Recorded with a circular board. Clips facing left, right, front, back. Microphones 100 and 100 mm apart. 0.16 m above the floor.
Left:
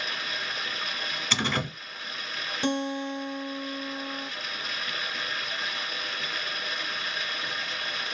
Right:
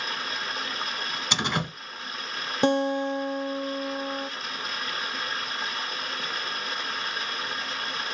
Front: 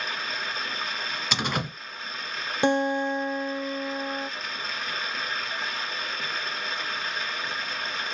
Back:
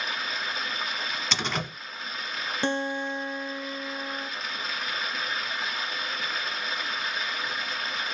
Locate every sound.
0.0 s running water: 95° right, 1.3 m
1.3 s a door slam: 60° right, 1.0 m
2.6 s a guitar: 70° right, 0.6 m